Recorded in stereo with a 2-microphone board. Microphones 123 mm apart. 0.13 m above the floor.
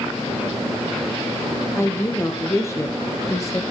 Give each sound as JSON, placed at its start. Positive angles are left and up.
{"t": 1.8, "sound": "a woman speaking", "side_deg": 20, "distance_m": 4.5}